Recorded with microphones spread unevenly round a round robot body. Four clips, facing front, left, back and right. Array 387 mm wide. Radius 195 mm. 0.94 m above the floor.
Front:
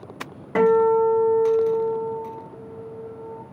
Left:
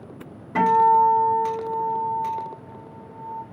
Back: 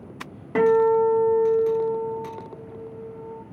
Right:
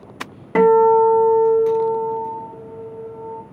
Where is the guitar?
75° right, 2.5 m.